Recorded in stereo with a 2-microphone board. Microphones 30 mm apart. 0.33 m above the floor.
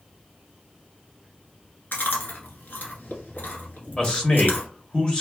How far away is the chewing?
About 1.1 m.